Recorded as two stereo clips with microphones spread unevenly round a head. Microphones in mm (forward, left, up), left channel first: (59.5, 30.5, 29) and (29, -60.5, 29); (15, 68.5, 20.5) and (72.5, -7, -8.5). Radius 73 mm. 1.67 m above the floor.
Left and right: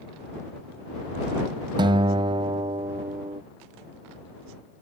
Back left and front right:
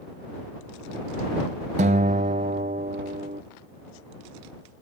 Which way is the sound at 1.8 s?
80° right.